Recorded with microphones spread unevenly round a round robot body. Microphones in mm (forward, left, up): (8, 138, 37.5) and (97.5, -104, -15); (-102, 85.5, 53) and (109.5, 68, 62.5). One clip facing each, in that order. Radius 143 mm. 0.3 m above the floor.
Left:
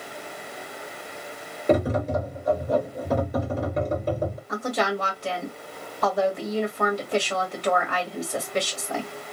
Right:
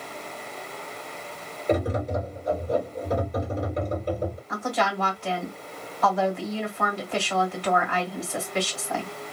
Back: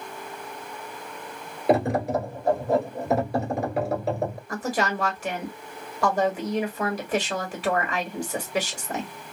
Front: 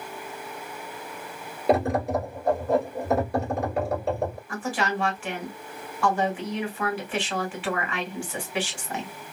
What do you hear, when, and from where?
1.7 s tapping: 90° left, 2.5 m
4.5 s a woman speaking: 155° left, 1.9 m